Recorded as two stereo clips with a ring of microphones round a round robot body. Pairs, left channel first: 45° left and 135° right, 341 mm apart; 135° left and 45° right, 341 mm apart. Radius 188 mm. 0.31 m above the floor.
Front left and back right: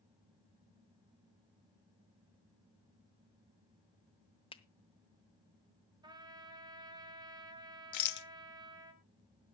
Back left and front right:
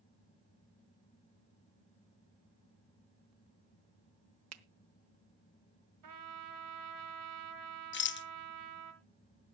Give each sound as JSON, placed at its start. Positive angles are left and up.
{"t": 4.5, "sound": "a finger snap", "azimuth_deg": -25, "distance_m": 1.0}
{"t": 6.0, "sound": "a trumpet", "azimuth_deg": -60, "distance_m": 2.0}
{"t": 7.9, "sound": "a rattle", "azimuth_deg": 80, "distance_m": 0.8}